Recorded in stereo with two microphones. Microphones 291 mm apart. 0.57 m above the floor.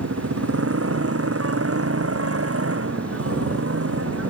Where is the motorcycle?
50° right (ahead or behind).